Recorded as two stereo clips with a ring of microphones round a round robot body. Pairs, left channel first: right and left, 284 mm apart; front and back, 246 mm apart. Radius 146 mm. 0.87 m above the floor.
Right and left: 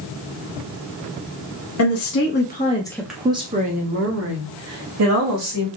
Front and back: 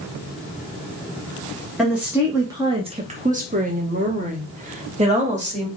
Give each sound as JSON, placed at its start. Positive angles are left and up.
{"t": 1.8, "sound": "a woman speaking", "azimuth_deg": -90, "distance_m": 1.0}